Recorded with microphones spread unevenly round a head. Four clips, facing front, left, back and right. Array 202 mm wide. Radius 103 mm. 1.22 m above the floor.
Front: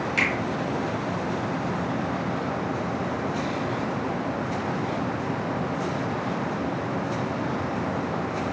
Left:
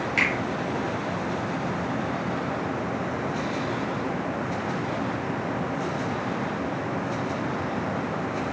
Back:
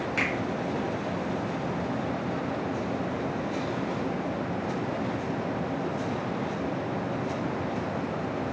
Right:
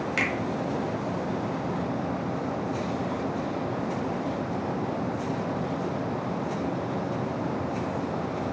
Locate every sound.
0.2 s a finger snap: 80° right, 1.1 m